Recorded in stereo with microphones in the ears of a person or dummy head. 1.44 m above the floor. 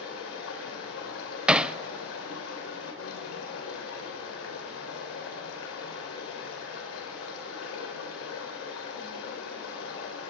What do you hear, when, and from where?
0.0 s running water: 80° left, 4 m
1.5 s hammering: centre (ahead or behind), 0.5 m